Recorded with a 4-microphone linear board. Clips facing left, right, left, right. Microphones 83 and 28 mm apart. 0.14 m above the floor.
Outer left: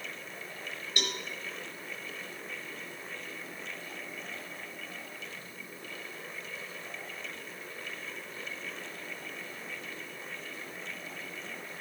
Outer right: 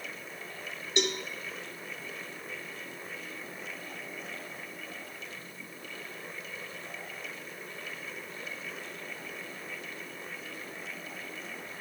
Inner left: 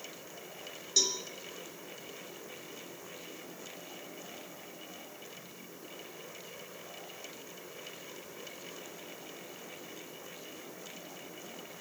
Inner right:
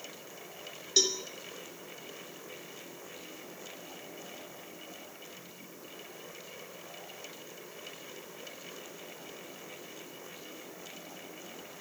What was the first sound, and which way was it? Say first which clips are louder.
A cowbell: outer right 6 dB, inner right 2 dB; 25° right (ahead or behind).